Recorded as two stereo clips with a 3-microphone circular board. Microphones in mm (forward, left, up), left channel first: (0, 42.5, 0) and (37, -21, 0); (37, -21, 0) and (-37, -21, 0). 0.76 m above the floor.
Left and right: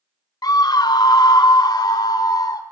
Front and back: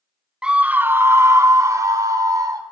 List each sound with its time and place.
0.4 s a scream: 100° left, 0.8 m; by 2.6 s 145° left, 2 m